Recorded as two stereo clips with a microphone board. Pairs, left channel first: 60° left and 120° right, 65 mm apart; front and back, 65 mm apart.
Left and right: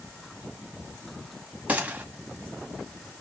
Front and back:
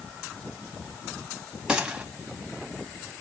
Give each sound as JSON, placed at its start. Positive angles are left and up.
{"t": 1.7, "sound": "a gunshot", "azimuth_deg": -125, "distance_m": 1.7}